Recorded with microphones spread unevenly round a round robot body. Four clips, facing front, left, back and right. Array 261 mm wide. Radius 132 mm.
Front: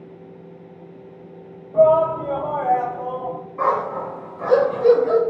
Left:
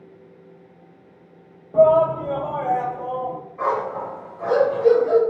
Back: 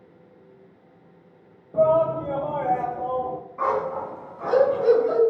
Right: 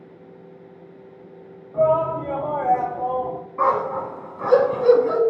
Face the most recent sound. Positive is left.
turn(degrees=-70)